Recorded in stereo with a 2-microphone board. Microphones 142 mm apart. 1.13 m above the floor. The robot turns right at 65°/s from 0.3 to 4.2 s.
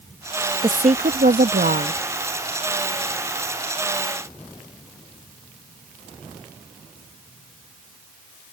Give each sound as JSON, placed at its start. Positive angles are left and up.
{"t": 0.6, "sound": "a woman speaking", "azimuth_deg": -150}